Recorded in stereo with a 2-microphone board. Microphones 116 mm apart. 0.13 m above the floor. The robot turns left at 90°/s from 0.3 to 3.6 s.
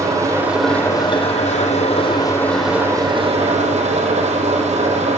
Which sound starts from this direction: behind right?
An engine running, at 0.0 s.